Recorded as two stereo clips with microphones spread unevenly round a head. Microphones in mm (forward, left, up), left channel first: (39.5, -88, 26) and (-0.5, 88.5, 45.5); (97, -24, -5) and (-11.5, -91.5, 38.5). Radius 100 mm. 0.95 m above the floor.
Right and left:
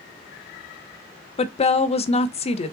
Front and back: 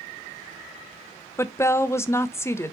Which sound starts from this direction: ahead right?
A woman speaking, at 1.4 s.